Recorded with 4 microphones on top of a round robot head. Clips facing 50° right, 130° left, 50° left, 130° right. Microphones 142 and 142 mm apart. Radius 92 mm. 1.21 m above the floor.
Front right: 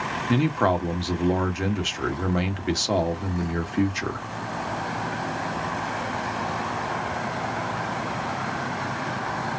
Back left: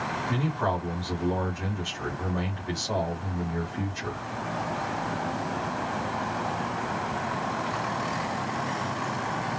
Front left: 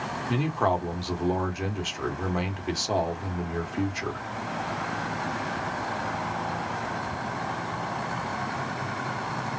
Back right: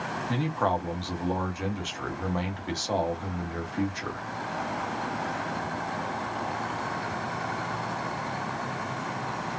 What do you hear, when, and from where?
0.3 s a man speaking: 30° right, 1.6 m